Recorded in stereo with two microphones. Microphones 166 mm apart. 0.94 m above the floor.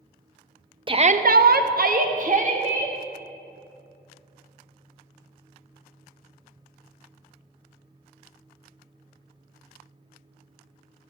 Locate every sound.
0.9 s a shout: 30° right (ahead or behind), 0.5 m; by 3.0 s 45° right (ahead or behind), 1.4 m